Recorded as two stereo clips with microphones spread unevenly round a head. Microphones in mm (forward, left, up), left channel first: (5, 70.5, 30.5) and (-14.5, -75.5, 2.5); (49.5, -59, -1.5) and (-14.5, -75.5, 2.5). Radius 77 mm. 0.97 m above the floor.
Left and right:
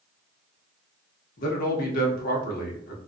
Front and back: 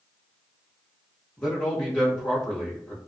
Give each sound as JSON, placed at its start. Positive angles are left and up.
{"t": 1.4, "sound": "a man speaking", "azimuth_deg": 85, "distance_m": 0.7}